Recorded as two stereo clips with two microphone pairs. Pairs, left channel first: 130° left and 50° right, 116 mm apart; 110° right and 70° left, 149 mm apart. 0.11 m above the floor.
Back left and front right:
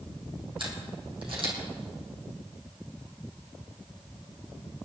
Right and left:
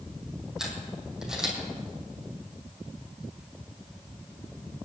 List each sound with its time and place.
0.6 s a camera shutter: 15° right, 4 m